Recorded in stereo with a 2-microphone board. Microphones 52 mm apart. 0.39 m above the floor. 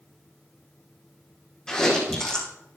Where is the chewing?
10° left (ahead or behind), 6 m.